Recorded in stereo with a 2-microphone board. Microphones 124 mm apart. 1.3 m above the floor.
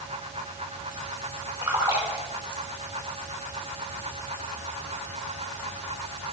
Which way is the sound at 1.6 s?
20° right (ahead or behind).